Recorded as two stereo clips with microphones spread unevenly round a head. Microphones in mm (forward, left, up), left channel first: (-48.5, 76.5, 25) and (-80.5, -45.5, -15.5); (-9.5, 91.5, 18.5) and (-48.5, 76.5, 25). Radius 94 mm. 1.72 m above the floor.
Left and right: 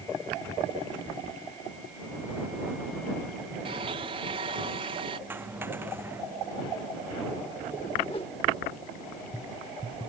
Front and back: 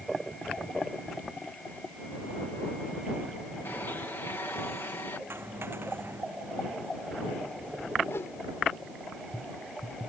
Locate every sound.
3.6 s a blender: 45° right
5.3 s a dropped coin: straight behind
8.1 s a whoosh: 25° left